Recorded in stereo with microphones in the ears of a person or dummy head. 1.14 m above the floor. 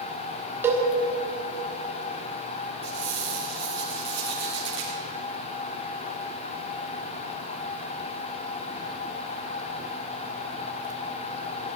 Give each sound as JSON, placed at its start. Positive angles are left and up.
{"t": 0.6, "sound": "a cowbell", "side_deg": -10, "distance_m": 1.3}
{"t": 2.8, "sound": "a squeak", "side_deg": -25, "distance_m": 5.0}